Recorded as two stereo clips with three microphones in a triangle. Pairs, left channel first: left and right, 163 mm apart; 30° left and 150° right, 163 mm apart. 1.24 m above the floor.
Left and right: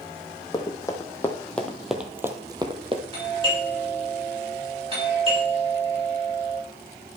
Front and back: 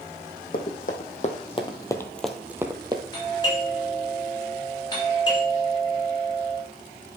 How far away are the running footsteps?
About 2 m.